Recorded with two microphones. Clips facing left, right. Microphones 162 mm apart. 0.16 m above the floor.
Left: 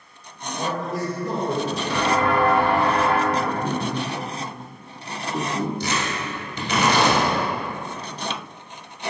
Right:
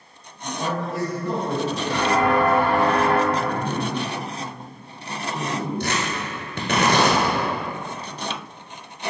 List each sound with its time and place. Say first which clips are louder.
0.4 s a man speaking: even; 40° left (ahead or behind), 1.7 m
1.9 s footsteps: right 1 dB; 40° right (ahead or behind), 2.0 m; by 3.2 s 55° right (ahead or behind), 0.7 m
3.3 s a man speaking: even; 50° left (ahead or behind), 1.7 m
5.8 s tearing paper: even; 65° right (ahead or behind), 1.2 m